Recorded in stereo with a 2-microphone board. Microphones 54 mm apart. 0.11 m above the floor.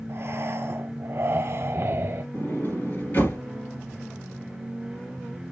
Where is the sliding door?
40° left (ahead or behind), 2 m.